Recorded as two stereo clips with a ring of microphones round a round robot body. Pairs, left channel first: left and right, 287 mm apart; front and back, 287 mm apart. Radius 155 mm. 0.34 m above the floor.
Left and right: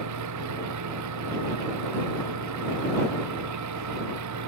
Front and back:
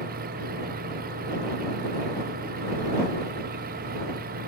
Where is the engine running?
115° right.